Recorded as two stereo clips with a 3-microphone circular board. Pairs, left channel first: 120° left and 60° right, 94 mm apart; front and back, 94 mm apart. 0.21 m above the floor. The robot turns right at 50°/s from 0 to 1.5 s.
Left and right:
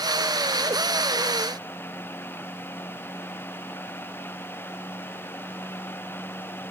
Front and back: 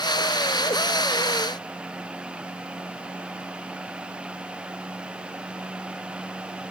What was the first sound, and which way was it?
Only background noise.